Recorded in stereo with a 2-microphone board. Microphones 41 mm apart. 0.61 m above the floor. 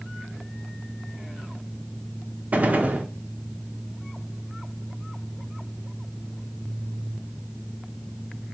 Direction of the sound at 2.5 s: 45° right (ahead or behind).